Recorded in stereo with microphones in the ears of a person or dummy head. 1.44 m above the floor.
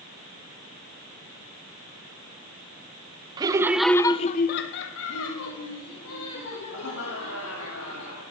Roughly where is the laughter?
Right.